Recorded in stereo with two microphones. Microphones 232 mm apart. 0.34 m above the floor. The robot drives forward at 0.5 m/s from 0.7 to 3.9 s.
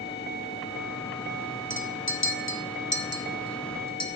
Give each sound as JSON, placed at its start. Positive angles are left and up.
{"t": 1.7, "sound": "a clink", "side_deg": 60, "distance_m": 0.9}